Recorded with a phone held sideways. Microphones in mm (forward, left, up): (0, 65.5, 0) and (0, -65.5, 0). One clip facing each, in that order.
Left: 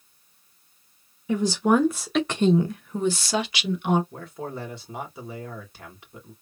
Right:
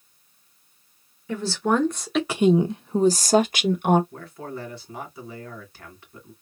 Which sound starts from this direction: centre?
A woman speaking, at 1.3 s.